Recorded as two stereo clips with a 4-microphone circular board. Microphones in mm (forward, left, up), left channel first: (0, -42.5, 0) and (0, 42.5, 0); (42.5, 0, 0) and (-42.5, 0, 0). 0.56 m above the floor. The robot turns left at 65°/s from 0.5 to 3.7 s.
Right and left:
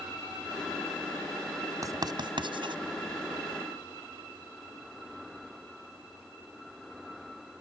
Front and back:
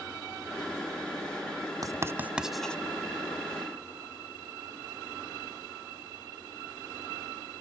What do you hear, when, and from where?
1.8 s writing: 135° left; by 2.8 s 75° left